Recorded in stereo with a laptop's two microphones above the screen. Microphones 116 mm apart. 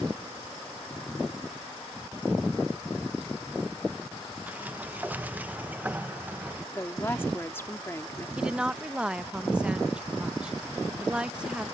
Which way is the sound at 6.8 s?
20° left (ahead or behind).